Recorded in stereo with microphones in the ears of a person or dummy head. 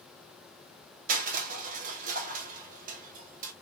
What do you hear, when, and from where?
1.1 s crushing: 50° right (ahead or behind), 0.6 m